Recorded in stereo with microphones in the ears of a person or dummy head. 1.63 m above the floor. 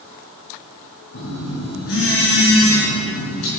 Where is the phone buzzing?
75° left (ahead or behind), 5 m.